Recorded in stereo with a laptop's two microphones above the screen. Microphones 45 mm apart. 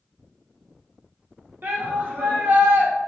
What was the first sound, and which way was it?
A shout, 50° right (ahead or behind).